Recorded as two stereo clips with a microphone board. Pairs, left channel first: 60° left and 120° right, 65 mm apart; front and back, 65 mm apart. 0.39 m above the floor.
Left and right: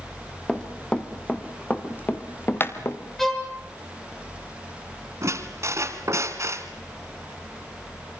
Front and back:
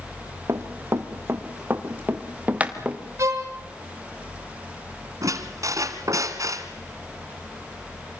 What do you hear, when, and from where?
0.5 s running footsteps: 140° left, 3 m; by 3.0 s 105° left, 3 m
3.2 s a violin: 145° left, 4.5 m
5.2 s a squeak: 160° right, 2.5 m